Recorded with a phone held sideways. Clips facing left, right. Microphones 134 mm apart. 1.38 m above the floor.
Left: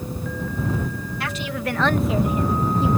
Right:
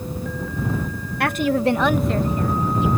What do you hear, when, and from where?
1.2 s a woman speaking: 60° right (ahead or behind); by 2.9 s 35° left (ahead or behind)